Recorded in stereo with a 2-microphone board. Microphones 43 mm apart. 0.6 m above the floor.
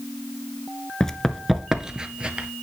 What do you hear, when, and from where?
1.0 s running footsteps: 15° left (ahead or behind), 0.5 m; by 2.5 s 25° right (ahead or behind), 0.9 m